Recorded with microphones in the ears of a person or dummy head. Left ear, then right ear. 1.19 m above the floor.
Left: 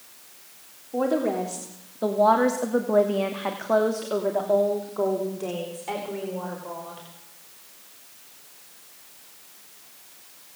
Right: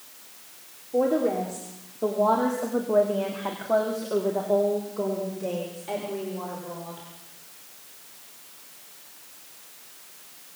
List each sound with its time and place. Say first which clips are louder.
0.9 s a woman speaking: right 1 dB; 35° left (ahead or behind), 3.5 m